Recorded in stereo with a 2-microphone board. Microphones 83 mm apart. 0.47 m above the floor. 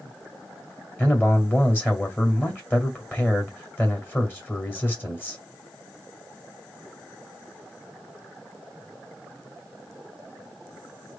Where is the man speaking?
20° left (ahead or behind), 2 m.